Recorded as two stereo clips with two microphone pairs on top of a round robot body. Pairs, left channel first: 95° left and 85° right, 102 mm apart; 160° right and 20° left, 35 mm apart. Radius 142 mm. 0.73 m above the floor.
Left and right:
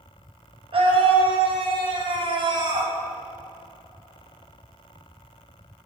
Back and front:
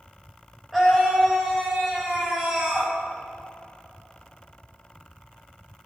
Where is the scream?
65° right, 5.5 m; by 2.9 s 45° right, 4.5 m.